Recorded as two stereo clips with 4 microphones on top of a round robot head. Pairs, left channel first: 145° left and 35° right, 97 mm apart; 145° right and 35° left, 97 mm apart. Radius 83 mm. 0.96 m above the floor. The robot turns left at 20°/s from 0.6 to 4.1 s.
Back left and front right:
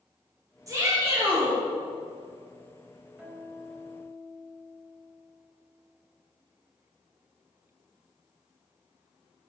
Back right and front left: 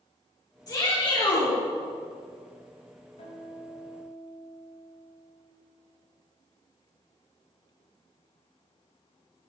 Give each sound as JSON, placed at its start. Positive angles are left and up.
{"t": 0.7, "sound": "a shout", "azimuth_deg": -95, "distance_m": 3.5}
{"t": 3.2, "sound": "a guitar", "azimuth_deg": -115, "distance_m": 3.0}